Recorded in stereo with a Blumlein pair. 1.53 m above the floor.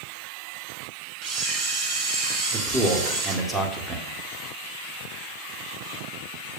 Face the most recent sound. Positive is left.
turn(degrees=-10)